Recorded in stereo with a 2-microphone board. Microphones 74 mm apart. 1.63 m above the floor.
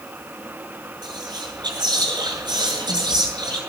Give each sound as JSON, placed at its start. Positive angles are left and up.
{"t": 1.0, "sound": "whispering", "side_deg": -90, "distance_m": 7.0}